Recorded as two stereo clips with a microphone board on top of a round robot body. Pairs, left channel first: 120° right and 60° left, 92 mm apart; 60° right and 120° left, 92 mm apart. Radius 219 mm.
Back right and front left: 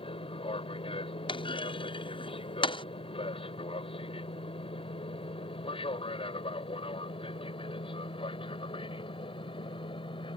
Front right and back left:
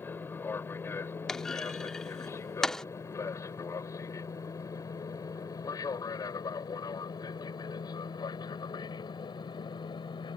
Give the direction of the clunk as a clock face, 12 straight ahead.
5 o'clock.